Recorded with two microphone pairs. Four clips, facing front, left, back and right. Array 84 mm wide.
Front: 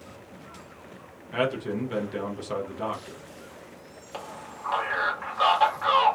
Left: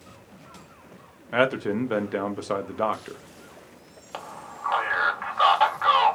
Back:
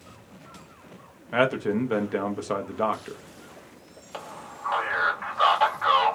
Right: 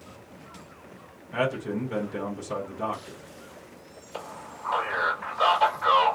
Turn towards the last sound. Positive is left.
turn(degrees=90)